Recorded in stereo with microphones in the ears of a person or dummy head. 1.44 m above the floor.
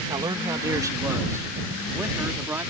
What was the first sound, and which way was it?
A man speaking, 20° right (ahead or behind).